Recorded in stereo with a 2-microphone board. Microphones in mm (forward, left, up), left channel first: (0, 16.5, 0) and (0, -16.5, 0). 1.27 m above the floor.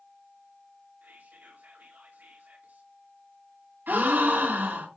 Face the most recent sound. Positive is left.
turn(degrees=-75)  # may be behind; listen again after turning